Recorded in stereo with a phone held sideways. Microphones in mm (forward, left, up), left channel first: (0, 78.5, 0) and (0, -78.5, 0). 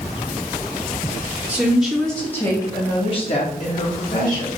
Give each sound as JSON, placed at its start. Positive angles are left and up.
{"t": 1.5, "sound": "a woman speaking", "side_deg": -5, "distance_m": 1.7}